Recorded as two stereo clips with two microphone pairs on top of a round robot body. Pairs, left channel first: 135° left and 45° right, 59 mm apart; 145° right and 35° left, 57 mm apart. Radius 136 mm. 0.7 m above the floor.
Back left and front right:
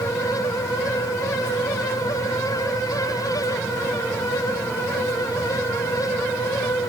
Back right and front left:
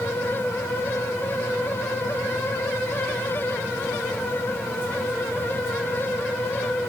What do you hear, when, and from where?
Only background noise.